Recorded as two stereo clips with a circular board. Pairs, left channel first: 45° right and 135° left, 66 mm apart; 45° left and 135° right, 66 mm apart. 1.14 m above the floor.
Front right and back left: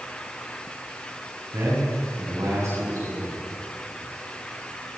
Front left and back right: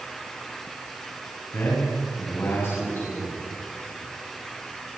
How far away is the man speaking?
About 7.5 m.